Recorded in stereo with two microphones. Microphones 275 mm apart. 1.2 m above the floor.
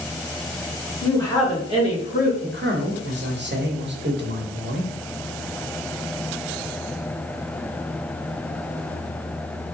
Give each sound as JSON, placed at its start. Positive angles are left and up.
{"t": 1.0, "sound": "a woman speaking", "side_deg": 10, "distance_m": 2.0}
{"t": 2.4, "sound": "a man speaking", "side_deg": -45, "distance_m": 1.0}